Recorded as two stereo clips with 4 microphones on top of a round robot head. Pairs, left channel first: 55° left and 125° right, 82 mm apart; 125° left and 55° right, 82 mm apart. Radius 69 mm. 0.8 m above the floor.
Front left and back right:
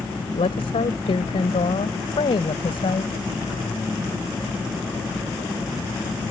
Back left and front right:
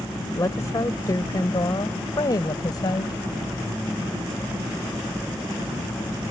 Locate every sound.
0.3 s a woman speaking: 70° left; by 3.2 s 85° left